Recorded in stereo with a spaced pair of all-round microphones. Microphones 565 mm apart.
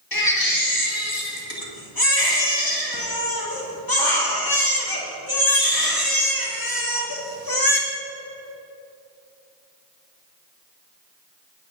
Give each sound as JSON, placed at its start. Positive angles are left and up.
{"t": 0.1, "sound": "a baby crying", "side_deg": 40, "distance_m": 1.7}